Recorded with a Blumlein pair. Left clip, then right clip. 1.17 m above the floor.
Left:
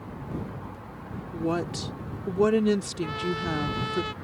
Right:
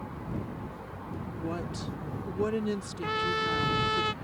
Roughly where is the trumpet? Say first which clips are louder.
Right 2 dB; ahead.